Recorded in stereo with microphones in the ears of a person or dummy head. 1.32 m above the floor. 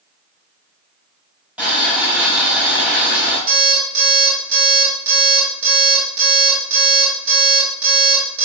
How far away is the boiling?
About 2.5 m.